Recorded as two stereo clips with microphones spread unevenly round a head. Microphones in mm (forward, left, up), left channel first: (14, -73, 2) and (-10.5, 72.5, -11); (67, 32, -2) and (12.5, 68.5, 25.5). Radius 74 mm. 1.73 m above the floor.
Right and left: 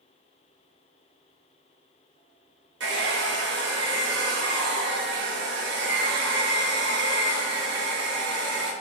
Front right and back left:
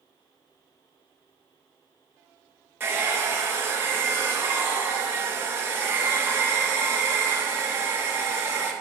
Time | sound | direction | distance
2.8 | a hair dryer | 100° left | 1.8 m